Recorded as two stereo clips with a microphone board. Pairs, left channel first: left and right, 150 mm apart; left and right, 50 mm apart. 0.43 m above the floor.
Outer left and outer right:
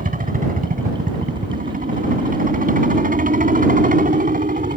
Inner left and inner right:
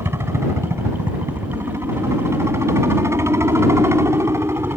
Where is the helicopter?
65° right (ahead or behind).